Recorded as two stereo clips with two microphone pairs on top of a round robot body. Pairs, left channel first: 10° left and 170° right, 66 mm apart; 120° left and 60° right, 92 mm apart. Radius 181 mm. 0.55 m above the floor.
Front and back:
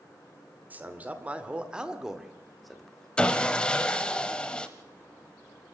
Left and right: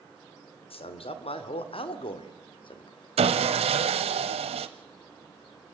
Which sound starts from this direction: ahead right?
Sawing, at 3.2 s.